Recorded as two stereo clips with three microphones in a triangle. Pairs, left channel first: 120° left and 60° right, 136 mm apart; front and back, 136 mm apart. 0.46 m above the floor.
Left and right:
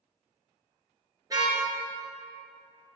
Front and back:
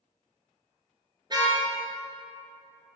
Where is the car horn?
125° right, 4 m.